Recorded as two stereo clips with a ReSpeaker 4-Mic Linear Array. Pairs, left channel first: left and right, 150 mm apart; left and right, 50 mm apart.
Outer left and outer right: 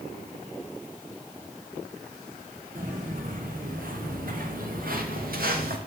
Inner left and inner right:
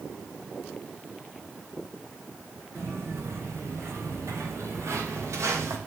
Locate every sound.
2.8 s footsteps: 65° right (ahead or behind), 5.5 m; by 5.8 s 80° right, 4.5 m